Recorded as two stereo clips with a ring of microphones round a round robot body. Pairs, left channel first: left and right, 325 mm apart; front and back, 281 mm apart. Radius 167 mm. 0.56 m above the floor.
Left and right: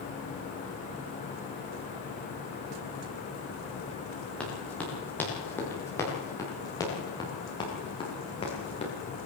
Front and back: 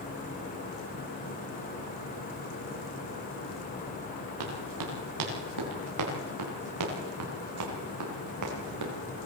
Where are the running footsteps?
175° left, 9.5 m; by 8.9 s 160° left, 8.5 m.